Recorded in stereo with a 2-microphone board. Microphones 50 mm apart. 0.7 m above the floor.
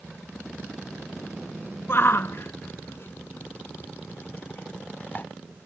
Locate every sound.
1.9 s a shout: 45° left (ahead or behind); by 5.3 s 35° left (ahead or behind)